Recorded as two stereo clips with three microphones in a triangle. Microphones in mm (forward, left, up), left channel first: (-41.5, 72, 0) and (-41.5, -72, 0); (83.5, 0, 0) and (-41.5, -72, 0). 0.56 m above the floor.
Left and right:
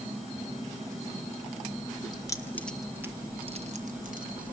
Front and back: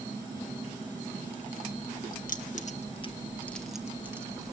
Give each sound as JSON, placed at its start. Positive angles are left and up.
{"t": 2.1, "sound": "keys jangling", "azimuth_deg": 30, "distance_m": 1.9}